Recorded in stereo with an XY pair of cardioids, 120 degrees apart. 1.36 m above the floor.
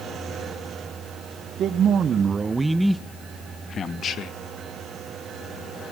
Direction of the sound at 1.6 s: 60° right.